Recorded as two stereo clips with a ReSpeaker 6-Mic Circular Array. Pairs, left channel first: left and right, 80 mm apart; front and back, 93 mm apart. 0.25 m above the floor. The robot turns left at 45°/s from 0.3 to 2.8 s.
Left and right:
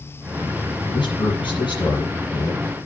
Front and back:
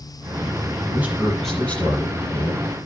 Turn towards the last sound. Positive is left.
turn(degrees=25)